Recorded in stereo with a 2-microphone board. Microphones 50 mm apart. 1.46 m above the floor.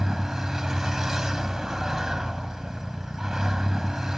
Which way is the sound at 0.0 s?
10° right (ahead or behind).